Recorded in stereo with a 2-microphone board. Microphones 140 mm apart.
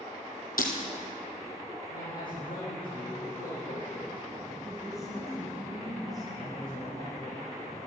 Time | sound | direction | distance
0.6 | breaking glass | 85° left | 3 m
1.9 | a man speaking | 80° left | 6 m
4.6 | a woman speaking | centre (ahead or behind) | 4 m
6.3 | a man speaking | 80° left | 6.5 m